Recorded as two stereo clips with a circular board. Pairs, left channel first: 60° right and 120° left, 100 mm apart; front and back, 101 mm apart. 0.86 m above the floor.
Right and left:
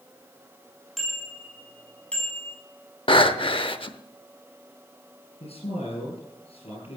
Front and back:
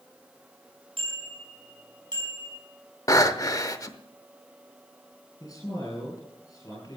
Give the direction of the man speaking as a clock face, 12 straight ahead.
2 o'clock.